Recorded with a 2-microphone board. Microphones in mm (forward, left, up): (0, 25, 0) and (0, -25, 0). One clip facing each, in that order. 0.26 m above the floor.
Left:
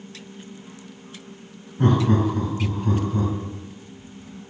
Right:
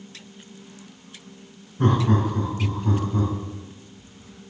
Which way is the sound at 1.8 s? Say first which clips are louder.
Left 2 dB; 15° left (ahead or behind).